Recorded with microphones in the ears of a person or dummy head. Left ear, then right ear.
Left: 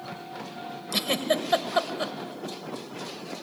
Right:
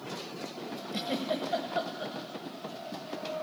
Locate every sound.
0.9 s a giggle: 45° left (ahead or behind), 1.1 m